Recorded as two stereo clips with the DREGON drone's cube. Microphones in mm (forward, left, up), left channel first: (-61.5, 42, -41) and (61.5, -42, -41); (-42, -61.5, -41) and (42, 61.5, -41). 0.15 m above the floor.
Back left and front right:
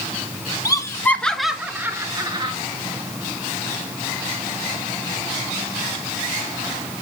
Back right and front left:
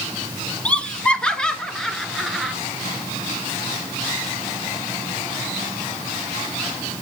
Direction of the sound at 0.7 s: 165° left.